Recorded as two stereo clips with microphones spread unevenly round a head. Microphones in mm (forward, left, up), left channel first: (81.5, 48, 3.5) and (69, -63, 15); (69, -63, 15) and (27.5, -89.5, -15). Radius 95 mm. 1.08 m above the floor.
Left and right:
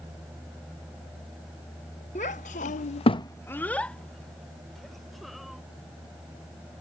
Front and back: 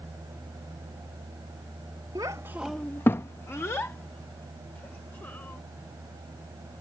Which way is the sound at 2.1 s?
140° left.